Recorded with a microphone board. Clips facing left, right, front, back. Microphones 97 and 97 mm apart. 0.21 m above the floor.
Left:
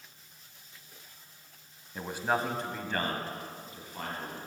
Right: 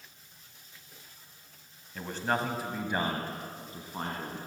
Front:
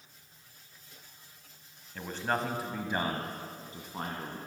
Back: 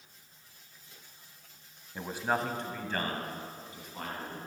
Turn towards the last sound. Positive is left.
turn(degrees=-45)